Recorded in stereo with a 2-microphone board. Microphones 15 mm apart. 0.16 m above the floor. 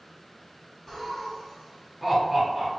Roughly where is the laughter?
Left.